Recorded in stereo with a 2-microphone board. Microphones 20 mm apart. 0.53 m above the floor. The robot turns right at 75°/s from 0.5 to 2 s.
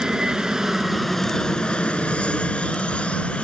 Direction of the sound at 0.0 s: 30° right.